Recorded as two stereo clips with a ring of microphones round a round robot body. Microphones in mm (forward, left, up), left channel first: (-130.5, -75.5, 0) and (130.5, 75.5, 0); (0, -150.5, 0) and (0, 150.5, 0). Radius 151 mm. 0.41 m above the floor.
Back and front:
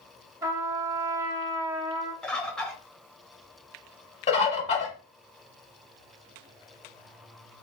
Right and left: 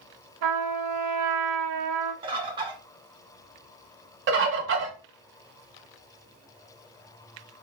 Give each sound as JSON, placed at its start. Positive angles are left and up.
{"t": 0.4, "sound": "a trumpet", "azimuth_deg": 110, "distance_m": 0.5}
{"t": 2.2, "sound": "a bird", "azimuth_deg": 125, "distance_m": 0.7}
{"t": 4.3, "sound": "a bird", "azimuth_deg": 140, "distance_m": 0.9}